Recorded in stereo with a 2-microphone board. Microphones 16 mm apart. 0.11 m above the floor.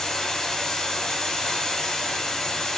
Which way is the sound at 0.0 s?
30° left (ahead or behind).